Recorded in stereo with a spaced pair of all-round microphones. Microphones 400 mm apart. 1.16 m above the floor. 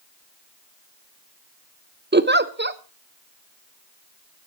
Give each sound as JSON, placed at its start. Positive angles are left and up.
{"t": 2.1, "sound": "a giggle", "side_deg": -25, "distance_m": 0.8}